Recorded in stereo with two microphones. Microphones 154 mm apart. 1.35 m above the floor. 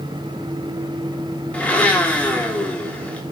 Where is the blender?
10° left (ahead or behind), 0.7 m.